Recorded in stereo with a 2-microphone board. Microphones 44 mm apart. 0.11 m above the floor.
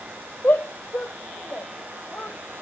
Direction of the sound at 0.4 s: 50° left (ahead or behind).